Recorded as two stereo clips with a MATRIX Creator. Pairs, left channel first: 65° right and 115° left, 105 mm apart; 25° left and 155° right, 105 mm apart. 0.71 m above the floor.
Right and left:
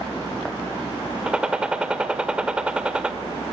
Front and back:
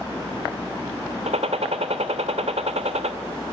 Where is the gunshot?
165° right, 1.1 m.